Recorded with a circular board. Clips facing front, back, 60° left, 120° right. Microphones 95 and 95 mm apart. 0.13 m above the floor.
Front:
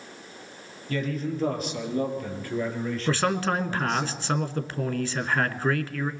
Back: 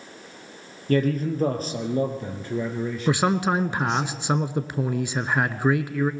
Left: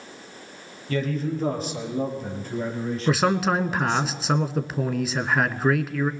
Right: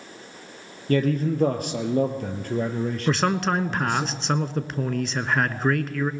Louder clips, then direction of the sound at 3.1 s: Back 3 dB, left 2 dB; 140° left.